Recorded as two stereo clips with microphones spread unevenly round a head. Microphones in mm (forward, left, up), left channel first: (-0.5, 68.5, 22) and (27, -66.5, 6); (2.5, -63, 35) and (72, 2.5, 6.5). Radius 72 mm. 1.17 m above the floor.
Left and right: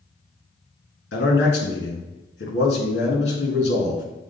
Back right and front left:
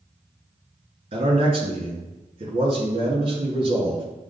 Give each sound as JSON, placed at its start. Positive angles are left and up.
{"t": 1.1, "sound": "a man speaking", "azimuth_deg": 90, "distance_m": 1.5}